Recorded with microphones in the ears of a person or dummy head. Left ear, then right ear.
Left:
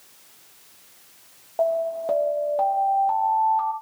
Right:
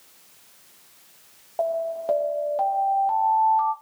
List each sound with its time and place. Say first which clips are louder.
1.6 s an alarm: left 3 dB; 10° right (ahead or behind), 0.6 m